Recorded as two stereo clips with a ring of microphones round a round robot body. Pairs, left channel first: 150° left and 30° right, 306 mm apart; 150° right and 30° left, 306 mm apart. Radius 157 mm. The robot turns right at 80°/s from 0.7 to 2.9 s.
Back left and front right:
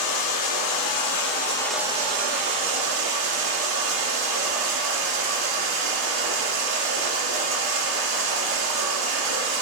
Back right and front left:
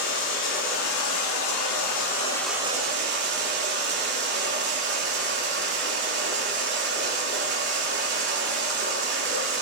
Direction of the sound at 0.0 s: 160° left.